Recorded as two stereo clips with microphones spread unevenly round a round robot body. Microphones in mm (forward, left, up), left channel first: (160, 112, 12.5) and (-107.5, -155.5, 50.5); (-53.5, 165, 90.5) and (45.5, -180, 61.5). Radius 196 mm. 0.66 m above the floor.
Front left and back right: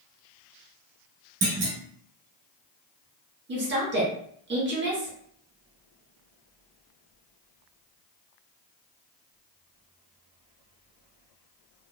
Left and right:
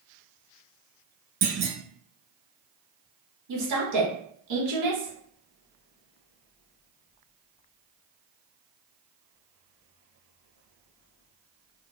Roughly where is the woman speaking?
Right.